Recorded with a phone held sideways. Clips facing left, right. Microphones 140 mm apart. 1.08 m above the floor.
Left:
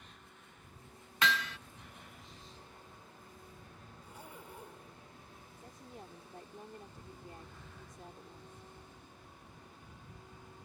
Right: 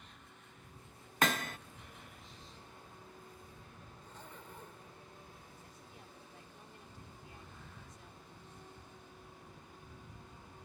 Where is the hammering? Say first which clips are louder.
Right 1 dB; 50° right (ahead or behind).